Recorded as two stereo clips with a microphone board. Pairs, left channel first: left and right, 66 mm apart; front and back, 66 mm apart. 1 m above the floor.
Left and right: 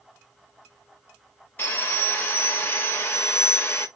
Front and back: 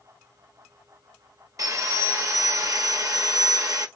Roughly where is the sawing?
Behind left.